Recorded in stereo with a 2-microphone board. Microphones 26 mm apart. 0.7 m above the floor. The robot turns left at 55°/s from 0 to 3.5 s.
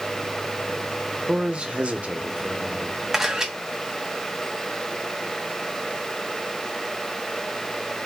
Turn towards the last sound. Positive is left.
turn(degrees=-20)  # may be behind; listen again after turning